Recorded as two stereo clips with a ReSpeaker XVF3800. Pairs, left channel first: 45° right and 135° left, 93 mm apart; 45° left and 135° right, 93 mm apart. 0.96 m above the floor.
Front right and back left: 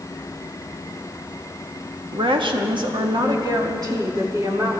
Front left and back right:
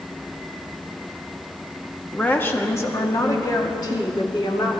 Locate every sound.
2.1 s a woman speaking: 120° left, 1.3 m; by 4.8 s 80° left, 2.5 m